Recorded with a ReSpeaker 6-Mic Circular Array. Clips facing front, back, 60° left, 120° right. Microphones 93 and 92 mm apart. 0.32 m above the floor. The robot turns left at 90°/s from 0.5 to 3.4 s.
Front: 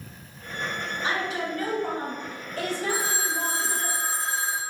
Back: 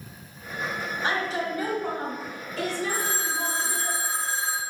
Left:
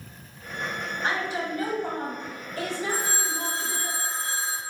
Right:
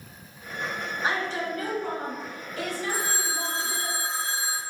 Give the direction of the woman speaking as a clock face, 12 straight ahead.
7 o'clock.